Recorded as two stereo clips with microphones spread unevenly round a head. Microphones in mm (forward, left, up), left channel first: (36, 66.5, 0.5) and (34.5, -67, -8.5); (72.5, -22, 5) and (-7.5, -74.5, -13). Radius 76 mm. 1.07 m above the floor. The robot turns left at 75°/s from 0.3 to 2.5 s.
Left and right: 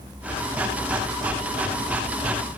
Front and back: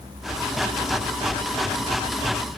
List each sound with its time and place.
Only background noise.